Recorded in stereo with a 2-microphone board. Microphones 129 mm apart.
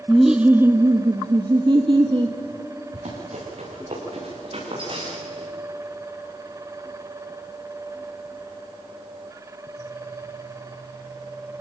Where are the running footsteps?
60° right (ahead or behind), 8.5 m; by 5.5 s 35° right (ahead or behind), 7.5 m.